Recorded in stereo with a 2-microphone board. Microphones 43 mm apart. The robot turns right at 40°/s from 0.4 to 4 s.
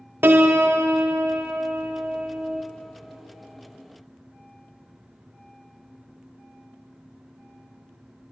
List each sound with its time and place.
0.2 s a piano: 115° right, 0.8 m; by 2.6 s 25° right, 0.8 m